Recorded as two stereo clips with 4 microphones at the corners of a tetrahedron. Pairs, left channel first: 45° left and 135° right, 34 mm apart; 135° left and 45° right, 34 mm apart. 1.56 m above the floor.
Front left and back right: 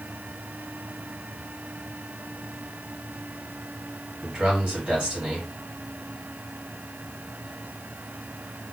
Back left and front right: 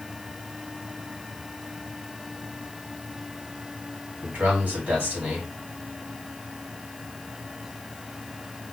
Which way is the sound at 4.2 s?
80° right.